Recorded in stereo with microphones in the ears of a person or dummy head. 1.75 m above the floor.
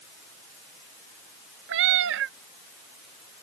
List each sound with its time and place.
1.7 s a cat meowing: 70° right (ahead or behind)